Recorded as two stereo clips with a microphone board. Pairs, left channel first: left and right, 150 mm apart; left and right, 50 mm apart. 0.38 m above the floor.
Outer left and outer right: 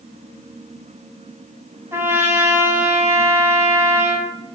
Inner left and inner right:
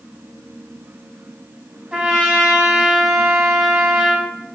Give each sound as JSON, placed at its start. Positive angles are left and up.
{"t": 1.9, "sound": "a trumpet", "side_deg": -15, "distance_m": 1.8}